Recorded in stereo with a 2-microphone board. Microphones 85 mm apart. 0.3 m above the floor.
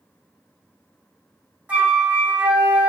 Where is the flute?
20° right (ahead or behind), 1.3 m.